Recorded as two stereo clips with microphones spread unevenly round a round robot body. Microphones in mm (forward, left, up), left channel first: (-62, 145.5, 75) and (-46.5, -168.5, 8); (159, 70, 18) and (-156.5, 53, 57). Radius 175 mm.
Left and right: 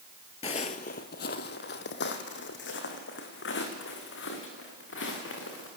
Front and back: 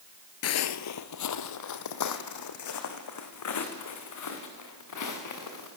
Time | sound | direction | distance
0.4 | footsteps | 40° left | 0.7 m